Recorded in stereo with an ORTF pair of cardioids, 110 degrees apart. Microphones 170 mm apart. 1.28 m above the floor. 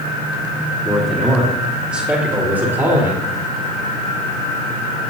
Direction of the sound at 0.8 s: 5° left.